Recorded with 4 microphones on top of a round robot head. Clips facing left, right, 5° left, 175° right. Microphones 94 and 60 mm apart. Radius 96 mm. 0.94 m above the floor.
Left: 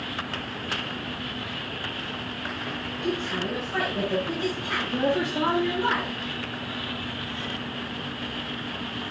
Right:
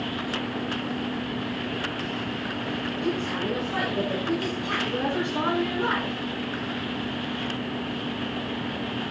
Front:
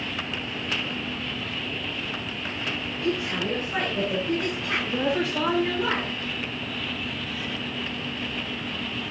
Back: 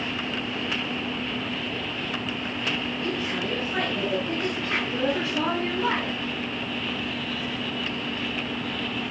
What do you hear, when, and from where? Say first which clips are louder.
3.0 s a woman speaking: left 1 dB, front 1 dB; 70° right, 5.5 m